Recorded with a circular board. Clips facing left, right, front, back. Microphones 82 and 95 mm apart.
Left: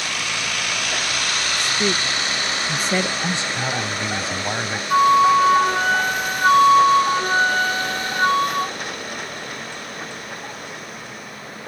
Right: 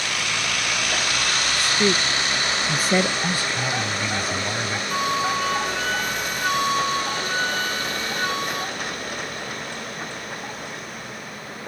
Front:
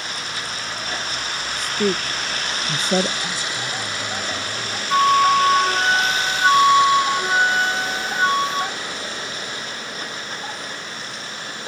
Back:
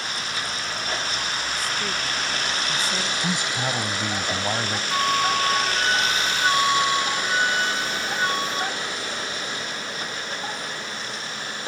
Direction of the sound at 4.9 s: 50° left.